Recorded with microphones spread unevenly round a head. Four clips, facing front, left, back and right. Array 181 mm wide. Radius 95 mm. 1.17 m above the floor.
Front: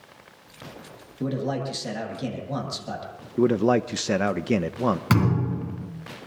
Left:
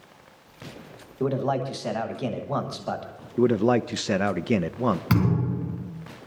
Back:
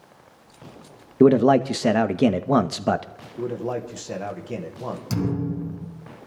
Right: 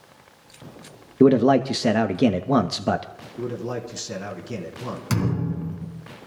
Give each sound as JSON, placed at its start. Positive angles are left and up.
{"t": 1.2, "sound": "a man speaking", "azimuth_deg": -135, "distance_m": 1.0}
{"t": 3.4, "sound": "a man speaking", "azimuth_deg": 30, "distance_m": 1.0}
{"t": 5.1, "sound": "a thud", "azimuth_deg": 10, "distance_m": 3.5}